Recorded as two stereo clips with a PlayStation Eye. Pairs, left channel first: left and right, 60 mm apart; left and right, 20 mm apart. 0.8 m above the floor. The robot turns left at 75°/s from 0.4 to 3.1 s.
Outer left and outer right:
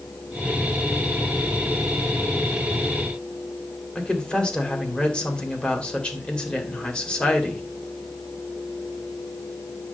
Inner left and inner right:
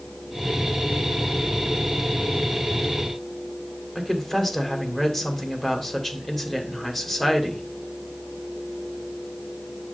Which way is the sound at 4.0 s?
15° left (ahead or behind).